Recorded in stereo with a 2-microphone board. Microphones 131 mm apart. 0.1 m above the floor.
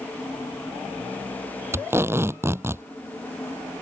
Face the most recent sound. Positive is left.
turn(degrees=-20)  # may be behind; listen again after turning